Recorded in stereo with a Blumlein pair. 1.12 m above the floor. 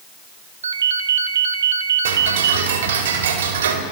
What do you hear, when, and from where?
0.6 s a ringtone: 70° right, 0.9 m
2.0 s ticking: 60° right, 3 m